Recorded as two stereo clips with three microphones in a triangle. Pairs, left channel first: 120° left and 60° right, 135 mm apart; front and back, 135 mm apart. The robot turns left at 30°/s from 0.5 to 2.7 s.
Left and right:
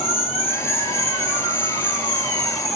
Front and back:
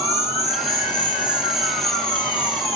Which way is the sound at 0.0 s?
125° left.